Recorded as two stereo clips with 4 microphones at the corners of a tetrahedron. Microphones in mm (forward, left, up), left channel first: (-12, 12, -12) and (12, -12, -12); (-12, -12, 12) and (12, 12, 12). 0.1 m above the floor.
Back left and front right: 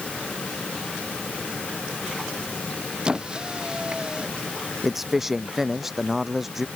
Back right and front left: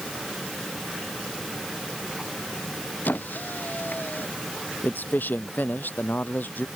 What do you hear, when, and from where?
3.0 s a squeak: 110° right
4.8 s a man speaking: 125° right